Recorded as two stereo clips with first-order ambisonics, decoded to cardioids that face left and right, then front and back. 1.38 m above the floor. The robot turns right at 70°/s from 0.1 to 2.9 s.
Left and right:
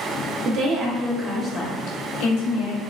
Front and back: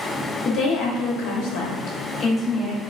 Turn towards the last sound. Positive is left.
turn(degrees=115)